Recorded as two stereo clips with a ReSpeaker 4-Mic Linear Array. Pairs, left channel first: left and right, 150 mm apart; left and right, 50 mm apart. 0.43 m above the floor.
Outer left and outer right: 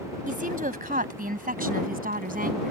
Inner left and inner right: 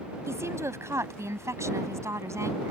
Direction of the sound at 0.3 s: 70° right (ahead or behind).